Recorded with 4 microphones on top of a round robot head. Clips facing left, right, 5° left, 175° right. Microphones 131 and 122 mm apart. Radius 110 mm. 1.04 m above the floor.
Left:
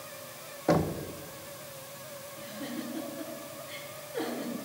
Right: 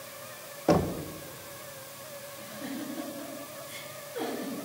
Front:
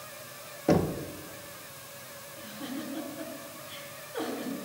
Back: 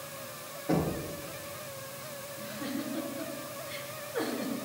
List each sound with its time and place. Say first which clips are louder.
0.7 s knocking: right 2 dB, front 4 dB; 10° right, 0.5 m
2.4 s a giggle: even, back 1 dB; 80° left, 2.5 m